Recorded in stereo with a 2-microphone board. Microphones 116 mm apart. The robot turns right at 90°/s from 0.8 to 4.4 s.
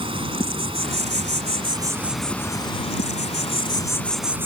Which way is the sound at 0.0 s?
125° right.